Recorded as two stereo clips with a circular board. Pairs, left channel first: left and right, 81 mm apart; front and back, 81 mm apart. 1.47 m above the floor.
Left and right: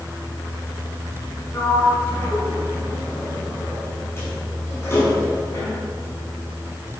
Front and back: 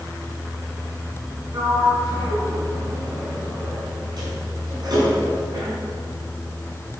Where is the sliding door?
150° left, 7 m.